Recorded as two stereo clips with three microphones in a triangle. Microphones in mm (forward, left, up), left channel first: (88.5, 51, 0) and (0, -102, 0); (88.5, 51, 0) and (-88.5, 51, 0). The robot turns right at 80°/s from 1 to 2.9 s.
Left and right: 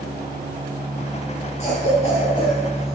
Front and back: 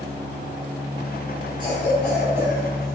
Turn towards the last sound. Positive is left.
turn(degrees=155)